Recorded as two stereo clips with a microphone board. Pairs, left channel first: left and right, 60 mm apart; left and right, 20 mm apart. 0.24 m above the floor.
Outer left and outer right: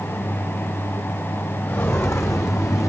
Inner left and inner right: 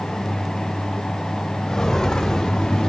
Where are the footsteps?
40° left (ahead or behind), 2.5 m; by 2.9 s 70° left (ahead or behind), 2 m.